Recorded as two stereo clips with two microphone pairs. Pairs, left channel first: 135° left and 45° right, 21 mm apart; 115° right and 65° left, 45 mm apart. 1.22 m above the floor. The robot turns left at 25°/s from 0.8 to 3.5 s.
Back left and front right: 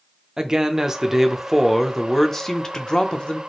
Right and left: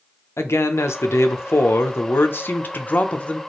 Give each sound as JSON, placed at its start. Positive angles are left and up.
{"t": 0.4, "sound": "a man speaking", "azimuth_deg": -115, "distance_m": 0.6}